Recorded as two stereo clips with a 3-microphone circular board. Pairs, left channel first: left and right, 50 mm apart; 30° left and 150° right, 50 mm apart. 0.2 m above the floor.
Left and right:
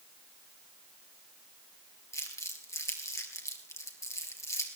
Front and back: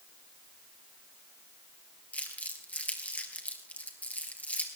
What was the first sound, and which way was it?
Crumpling, 90° left.